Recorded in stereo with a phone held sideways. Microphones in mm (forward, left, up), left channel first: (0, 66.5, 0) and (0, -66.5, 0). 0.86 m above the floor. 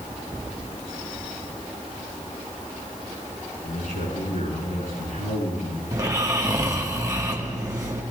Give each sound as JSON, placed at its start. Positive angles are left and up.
{"t": 3.6, "sound": "a man speaking", "side_deg": 75, "distance_m": 8.0}
{"t": 5.9, "sound": "snoring", "side_deg": -25, "distance_m": 1.4}